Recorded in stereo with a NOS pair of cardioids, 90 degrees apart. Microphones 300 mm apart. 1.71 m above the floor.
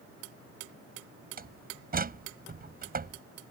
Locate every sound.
1.4 s a door slam: 30° right